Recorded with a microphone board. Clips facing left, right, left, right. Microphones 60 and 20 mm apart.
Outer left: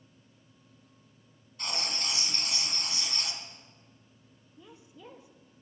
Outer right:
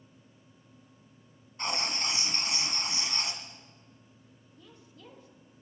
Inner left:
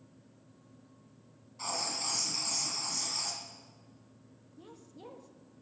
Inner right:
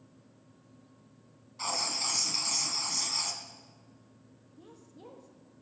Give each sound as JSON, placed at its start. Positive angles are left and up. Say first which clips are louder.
{"t": 1.6, "sound": "writing", "louder": "outer right 3 dB, inner right 3 dB", "side_deg": -30, "distance_m": 1.9}
{"t": 4.6, "sound": "a woman speaking", "louder": "outer left 3 dB, inner left 1 dB", "side_deg": 20, "distance_m": 1.6}